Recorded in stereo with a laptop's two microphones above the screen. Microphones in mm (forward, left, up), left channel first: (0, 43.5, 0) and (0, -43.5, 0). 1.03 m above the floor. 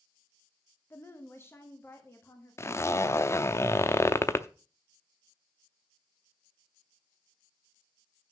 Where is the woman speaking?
30° left (ahead or behind), 0.9 m; by 3.6 s 25° left (ahead or behind), 2 m.